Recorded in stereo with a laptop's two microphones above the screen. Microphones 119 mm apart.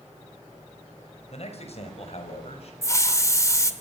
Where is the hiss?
25° left (ahead or behind), 1.5 m.